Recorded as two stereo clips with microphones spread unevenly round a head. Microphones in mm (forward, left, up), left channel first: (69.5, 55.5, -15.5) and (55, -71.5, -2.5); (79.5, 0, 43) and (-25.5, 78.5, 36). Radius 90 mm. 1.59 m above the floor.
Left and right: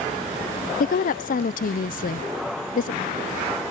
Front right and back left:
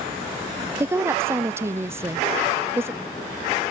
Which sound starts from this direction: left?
A woman speaking, at 0.8 s.